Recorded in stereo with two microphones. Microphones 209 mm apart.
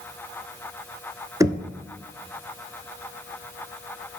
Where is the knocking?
15° right (ahead or behind), 0.8 m.